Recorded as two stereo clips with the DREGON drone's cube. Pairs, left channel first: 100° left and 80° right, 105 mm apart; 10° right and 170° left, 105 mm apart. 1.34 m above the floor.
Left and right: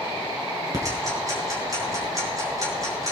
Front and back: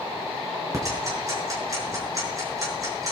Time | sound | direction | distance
0.7 | ticking | 135° right | 5.5 m